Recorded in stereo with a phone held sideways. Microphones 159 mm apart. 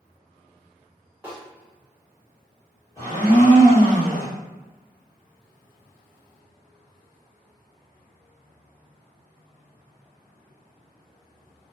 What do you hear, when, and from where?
1.2 s a snare drum: 10° right (ahead or behind), 1.2 m
3.0 s a blender: 20° left (ahead or behind), 1.2 m